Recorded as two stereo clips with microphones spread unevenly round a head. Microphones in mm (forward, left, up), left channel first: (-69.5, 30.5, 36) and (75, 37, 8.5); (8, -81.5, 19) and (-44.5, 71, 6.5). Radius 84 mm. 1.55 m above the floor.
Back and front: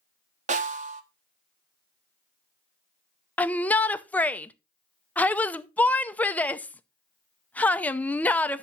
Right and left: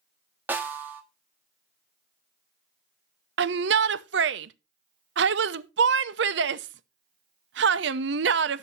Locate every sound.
0.5 s a snare drum: 30° left, 1.2 m
3.4 s a shout: 110° left, 0.7 m